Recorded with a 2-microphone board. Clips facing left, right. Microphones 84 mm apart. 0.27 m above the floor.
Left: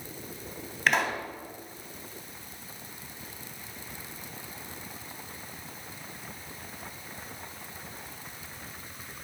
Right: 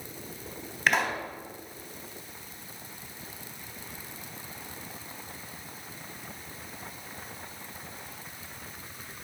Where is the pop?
Centre (ahead or behind), 1.2 m.